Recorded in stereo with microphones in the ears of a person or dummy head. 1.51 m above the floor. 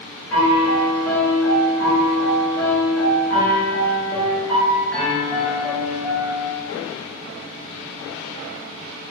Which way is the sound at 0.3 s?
15° left (ahead or behind).